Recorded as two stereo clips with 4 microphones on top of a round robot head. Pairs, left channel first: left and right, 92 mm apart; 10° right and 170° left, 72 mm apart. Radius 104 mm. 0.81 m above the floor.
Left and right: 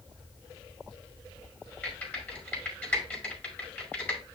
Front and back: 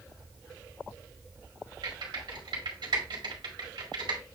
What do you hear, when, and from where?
1.8 s typing on a keyboard: 160° left, 5 m